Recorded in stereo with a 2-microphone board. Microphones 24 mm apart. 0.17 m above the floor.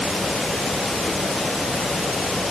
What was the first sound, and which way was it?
Only background noise.